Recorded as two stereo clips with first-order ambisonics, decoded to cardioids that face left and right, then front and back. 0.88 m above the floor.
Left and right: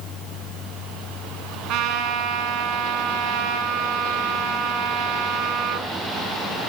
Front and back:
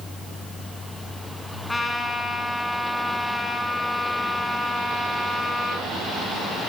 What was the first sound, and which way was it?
A trumpet, 80° right.